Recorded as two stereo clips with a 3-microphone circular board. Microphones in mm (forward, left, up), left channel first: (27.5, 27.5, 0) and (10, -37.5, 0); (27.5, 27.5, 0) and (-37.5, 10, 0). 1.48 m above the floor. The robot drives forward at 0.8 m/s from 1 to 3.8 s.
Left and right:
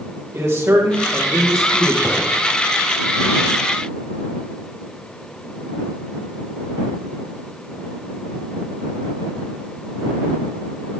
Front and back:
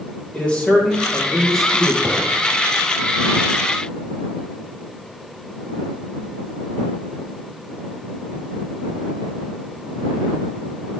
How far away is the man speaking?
About 2 m.